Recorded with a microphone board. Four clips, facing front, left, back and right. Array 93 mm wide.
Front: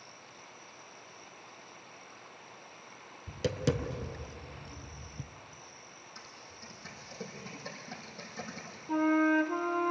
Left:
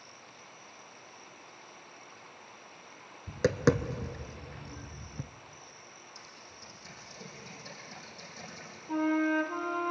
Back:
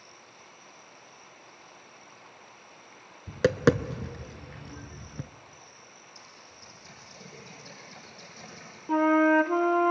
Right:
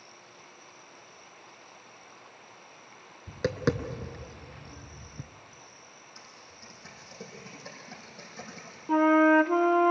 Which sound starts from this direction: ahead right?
Typing on a keyboard, at 6.2 s.